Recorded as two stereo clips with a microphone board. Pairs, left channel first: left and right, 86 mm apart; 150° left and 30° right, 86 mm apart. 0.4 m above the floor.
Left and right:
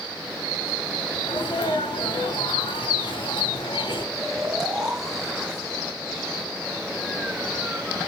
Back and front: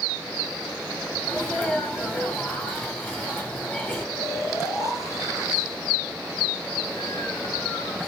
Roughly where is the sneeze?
Left.